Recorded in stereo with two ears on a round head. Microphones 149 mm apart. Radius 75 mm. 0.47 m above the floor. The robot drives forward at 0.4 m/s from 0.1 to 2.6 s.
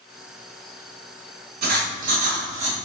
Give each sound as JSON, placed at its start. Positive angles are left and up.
{"t": 1.6, "sound": "writing", "side_deg": -60, "distance_m": 0.8}